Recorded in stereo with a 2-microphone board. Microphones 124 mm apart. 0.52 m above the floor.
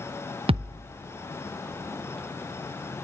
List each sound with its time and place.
0.5 s a thud: 45° right (ahead or behind), 0.6 m